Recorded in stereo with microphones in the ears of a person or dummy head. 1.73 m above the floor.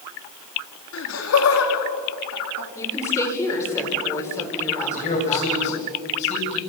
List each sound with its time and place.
0.9 s laughter: 75° left (ahead or behind), 4 m
2.8 s a woman speaking: 15° left (ahead or behind), 5.5 m
5.0 s a man speaking: 40° left (ahead or behind), 8 m